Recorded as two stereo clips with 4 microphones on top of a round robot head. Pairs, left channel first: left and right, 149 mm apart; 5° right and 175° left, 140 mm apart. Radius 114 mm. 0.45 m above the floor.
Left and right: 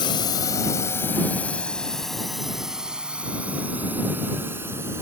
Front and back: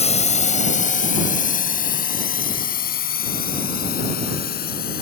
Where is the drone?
30° left; by 5.0 s 15° right.